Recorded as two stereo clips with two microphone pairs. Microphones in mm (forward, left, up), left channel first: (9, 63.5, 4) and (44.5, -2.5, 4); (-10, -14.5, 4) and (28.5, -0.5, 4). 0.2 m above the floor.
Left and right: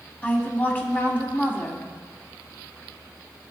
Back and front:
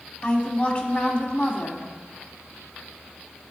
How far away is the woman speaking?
About 1.4 m.